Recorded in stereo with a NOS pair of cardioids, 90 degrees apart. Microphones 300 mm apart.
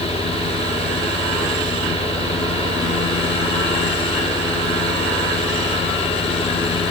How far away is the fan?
About 3 m.